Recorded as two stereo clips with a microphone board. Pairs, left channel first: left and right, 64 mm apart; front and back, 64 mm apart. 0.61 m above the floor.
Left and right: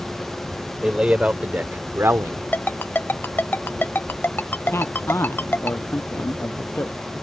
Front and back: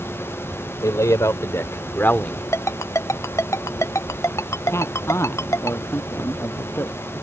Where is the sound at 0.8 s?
15° right; by 2.4 s 65° right.